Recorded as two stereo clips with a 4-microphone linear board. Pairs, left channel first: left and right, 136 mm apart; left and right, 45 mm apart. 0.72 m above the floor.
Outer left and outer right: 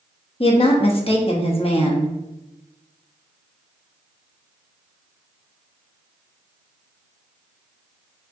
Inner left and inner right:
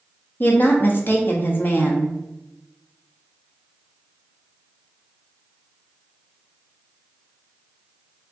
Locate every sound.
0.4 s a woman speaking: 40° left (ahead or behind), 0.6 m